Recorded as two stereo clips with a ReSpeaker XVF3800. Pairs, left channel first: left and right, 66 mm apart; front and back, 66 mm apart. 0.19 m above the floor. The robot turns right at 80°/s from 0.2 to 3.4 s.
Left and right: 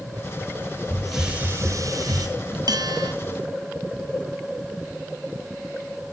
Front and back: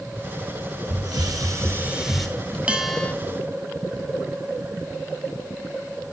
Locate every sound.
0.9 s a hiss: 165° left, 1.3 m; by 2.3 s 85° right, 1.3 m
2.7 s a bell: 105° right, 0.6 m; by 3.1 s 70° right, 0.6 m